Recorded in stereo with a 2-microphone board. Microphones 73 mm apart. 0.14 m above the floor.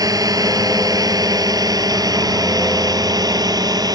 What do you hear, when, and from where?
0.0 s a drone: 60° right (ahead or behind); by 4.0 s 65° right (ahead or behind)